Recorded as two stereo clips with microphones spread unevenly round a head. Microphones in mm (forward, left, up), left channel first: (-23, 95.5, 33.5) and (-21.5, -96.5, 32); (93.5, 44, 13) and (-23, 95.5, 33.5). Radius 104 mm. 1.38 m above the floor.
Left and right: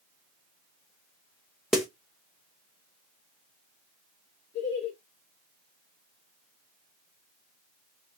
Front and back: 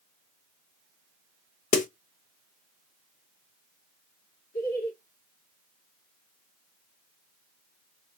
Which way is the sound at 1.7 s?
Straight ahead.